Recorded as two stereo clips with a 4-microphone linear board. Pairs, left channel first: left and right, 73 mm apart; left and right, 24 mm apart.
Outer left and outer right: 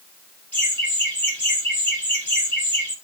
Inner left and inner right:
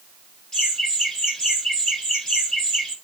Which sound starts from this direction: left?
Laughter, at 0.5 s.